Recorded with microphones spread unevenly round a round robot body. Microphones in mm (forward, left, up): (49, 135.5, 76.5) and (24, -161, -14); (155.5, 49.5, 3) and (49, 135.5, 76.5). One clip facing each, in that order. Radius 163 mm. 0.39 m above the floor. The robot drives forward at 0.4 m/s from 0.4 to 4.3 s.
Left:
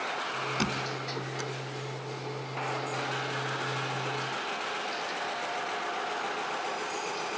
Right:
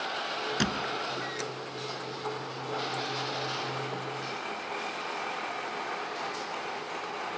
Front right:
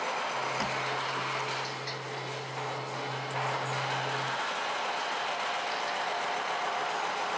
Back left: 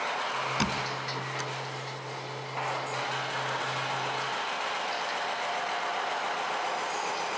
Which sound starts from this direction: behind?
A squeak, at 0.6 s.